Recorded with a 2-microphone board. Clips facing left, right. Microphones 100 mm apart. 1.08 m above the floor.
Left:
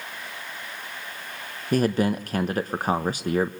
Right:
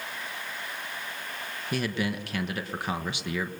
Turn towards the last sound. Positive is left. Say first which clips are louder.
# left 8 dB
turn(degrees=45)  # may be behind; listen again after turning